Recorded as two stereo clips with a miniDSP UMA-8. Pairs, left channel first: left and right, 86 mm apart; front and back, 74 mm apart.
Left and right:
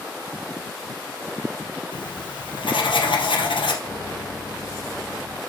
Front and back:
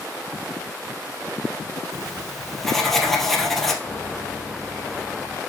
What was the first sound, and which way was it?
Writing, 85° left.